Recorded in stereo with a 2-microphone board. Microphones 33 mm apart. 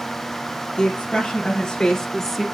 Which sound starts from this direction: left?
A woman speaking, at 0.8 s.